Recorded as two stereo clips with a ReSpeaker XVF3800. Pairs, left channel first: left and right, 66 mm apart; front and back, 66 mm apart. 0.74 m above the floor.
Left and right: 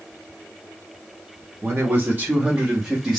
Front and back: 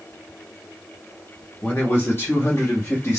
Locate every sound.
1.6 s a man speaking: 50° right, 1.5 m; by 3.2 s 10° right, 1.3 m